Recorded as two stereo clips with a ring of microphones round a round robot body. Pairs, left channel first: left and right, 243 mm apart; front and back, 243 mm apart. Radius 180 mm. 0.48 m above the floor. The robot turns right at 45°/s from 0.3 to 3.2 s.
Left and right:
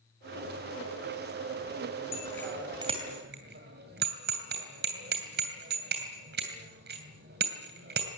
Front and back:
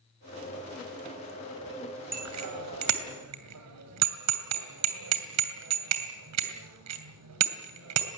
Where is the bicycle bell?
160° left, 2.5 m; by 8.1 s 150° right, 2.5 m.